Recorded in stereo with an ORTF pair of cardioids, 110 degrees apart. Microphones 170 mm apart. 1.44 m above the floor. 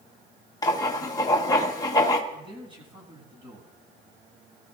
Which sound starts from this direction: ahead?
Writing, at 0.6 s.